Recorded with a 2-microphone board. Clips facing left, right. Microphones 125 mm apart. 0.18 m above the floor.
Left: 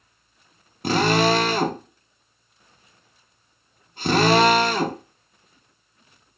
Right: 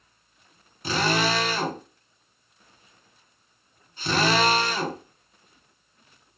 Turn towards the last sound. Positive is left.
turn(degrees=55)  # may be behind; listen again after turning